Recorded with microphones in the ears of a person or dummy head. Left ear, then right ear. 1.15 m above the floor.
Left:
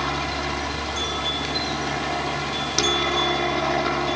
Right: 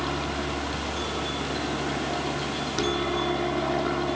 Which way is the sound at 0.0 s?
65° left (ahead or behind).